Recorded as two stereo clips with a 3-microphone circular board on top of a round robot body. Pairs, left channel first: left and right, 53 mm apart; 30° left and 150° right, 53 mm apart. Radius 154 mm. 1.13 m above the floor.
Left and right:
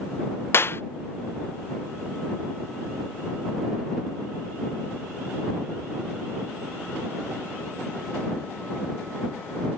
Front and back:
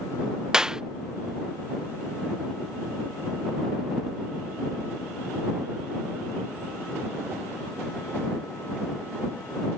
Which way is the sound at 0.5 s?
130° left.